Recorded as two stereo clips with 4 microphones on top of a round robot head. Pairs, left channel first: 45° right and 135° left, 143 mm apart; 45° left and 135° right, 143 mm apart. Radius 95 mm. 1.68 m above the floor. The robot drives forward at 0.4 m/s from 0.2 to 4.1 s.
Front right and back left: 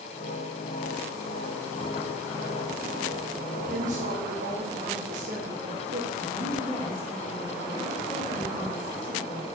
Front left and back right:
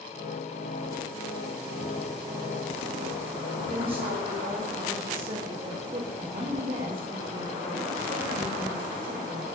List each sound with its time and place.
3.7 s a woman speaking: 170° left, 2.5 m
6.2 s a woman speaking: 105° right, 4 m